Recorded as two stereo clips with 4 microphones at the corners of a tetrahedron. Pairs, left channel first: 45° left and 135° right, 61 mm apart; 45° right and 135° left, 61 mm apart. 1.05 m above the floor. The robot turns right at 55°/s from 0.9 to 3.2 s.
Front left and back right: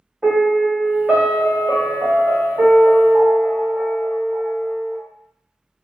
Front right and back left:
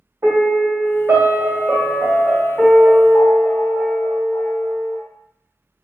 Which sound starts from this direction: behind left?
A piano, at 0.2 s.